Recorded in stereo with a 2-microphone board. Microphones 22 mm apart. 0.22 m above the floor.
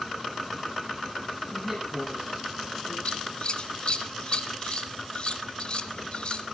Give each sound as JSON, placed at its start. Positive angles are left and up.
{"t": 1.5, "sound": "a woman speaking", "side_deg": -10, "distance_m": 10.0}
{"t": 3.0, "sound": "scissors", "side_deg": 45, "distance_m": 1.2}